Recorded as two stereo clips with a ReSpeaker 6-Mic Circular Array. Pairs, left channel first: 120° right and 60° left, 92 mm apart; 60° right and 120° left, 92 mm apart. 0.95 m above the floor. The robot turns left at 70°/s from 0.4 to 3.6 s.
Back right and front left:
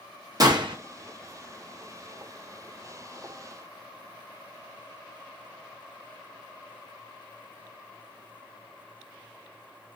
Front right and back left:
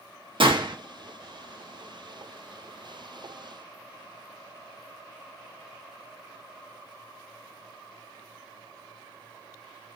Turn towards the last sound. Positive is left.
turn(degrees=-120)